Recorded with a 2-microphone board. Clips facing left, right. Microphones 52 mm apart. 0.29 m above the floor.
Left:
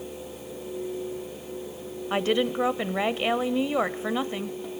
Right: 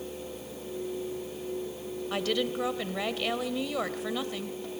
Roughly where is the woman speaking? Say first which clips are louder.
Left 6 dB; left.